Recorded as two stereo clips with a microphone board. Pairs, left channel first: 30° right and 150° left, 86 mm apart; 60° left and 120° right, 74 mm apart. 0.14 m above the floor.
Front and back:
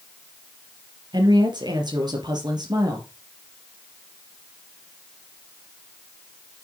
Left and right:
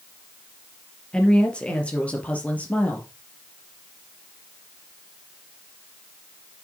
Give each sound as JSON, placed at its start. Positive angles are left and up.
{"t": 1.1, "sound": "a woman speaking", "azimuth_deg": 135, "distance_m": 4.0}